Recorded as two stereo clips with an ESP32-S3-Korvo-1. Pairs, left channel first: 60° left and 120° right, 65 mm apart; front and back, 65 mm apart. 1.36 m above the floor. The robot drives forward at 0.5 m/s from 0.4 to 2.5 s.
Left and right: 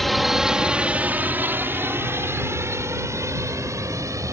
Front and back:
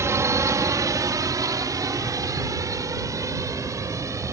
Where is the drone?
150° left; by 4.3 s 150° right.